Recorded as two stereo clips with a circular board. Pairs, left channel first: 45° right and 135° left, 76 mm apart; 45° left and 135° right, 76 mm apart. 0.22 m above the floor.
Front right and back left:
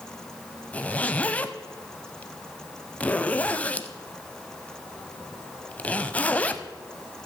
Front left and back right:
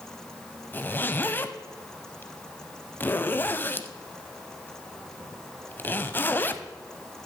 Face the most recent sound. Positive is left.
turn(degrees=10)